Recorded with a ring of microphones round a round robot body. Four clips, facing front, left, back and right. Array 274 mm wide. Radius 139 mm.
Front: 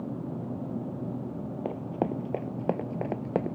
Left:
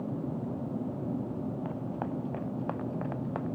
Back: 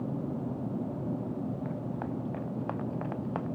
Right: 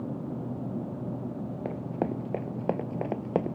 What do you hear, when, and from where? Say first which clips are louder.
1.6 s running footsteps: right 4 dB, front 5 dB; 35° right; by 3.5 s 50° right